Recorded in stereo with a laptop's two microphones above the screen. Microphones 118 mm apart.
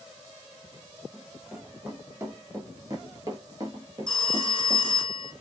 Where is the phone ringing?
5° left (ahead or behind), 1.1 m.